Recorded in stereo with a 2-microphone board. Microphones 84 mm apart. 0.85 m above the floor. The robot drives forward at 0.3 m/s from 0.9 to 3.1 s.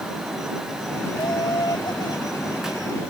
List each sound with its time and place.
1.1 s laughter: 60° left (ahead or behind); by 3.0 s 55° left (ahead or behind)